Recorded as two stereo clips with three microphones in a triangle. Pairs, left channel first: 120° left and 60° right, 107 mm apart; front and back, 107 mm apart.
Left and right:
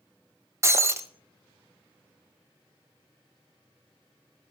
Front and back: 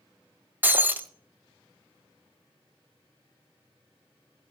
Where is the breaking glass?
115° right, 0.6 m.